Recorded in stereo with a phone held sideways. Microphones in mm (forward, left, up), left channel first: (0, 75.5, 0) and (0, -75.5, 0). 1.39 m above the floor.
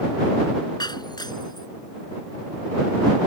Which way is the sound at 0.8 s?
30° left (ahead or behind).